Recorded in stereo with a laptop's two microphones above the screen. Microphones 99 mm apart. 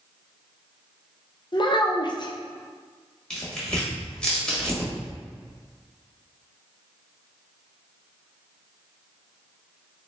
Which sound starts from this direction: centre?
Tearing paper, at 3.3 s.